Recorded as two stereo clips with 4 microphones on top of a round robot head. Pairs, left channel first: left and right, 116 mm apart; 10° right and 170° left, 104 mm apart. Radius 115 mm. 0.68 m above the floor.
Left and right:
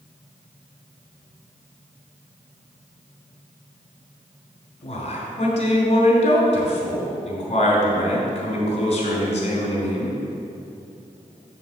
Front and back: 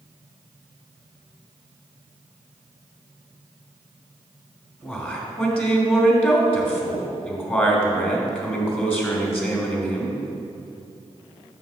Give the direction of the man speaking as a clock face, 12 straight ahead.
10 o'clock.